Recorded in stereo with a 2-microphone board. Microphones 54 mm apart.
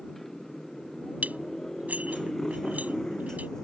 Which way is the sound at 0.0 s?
5° left (ahead or behind).